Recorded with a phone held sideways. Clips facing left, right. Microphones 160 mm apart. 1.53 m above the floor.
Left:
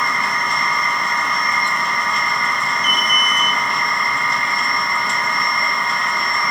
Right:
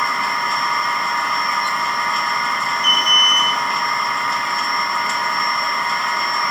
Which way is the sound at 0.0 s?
Centre (ahead or behind).